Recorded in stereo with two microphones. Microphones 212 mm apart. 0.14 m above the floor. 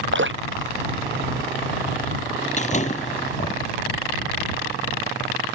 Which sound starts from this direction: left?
A door slam, at 2.6 s.